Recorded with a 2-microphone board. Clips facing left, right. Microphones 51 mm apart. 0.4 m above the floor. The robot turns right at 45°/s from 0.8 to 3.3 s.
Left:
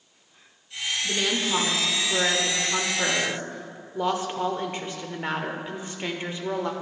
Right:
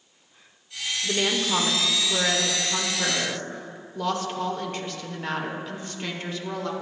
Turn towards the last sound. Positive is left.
turn(degrees=25)  # may be behind; listen again after turning